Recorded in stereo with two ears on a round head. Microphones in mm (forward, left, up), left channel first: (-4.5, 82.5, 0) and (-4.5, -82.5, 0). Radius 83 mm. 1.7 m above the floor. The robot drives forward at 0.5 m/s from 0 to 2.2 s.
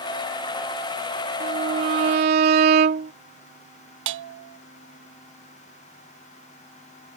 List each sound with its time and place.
1.4 s a violin: 45° right (ahead or behind); by 3.1 s 50° right (ahead or behind)
4.1 s a bell: 80° right